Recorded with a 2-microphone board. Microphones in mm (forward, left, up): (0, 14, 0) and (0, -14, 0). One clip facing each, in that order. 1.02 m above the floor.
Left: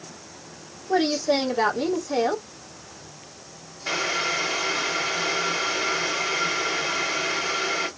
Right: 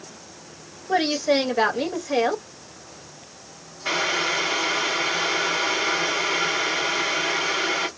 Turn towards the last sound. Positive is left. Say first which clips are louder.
# right 2 dB
turn(degrees=-55)  # may be behind; listen again after turning